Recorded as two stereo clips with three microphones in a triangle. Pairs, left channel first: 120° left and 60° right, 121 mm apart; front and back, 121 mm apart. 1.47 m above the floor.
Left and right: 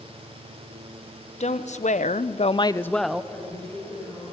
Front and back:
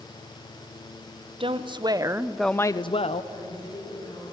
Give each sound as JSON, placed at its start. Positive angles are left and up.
{"t": 1.4, "sound": "a woman speaking", "azimuth_deg": 140, "distance_m": 1.3}
{"t": 3.3, "sound": "a woman speaking", "azimuth_deg": 45, "distance_m": 9.5}